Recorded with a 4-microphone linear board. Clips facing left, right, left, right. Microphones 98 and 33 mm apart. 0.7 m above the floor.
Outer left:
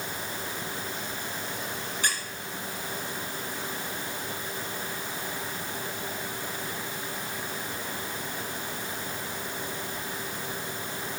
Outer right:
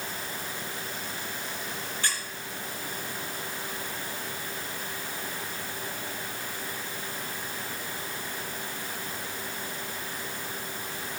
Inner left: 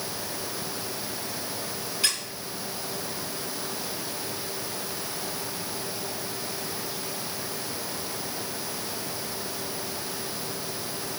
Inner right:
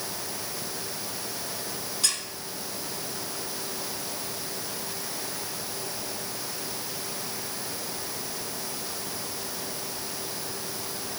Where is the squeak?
15° left (ahead or behind), 2 m.